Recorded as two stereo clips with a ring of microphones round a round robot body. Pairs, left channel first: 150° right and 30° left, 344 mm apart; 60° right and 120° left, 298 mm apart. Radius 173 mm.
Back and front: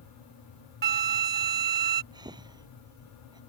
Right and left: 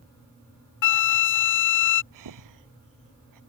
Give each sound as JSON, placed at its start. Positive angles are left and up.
{"t": 0.8, "sound": "a flute", "azimuth_deg": -35}
{"t": 2.1, "sound": "breathing", "azimuth_deg": 110}